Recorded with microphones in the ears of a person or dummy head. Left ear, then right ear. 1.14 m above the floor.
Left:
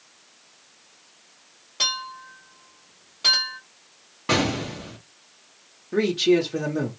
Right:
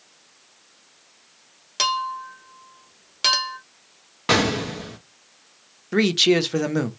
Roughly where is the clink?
Right.